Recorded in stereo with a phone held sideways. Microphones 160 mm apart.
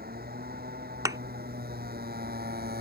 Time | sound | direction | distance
0.0 | a motorcycle | 75° right (ahead or behind) | ?
1.1 | a thud | 20° right (ahead or behind) | ?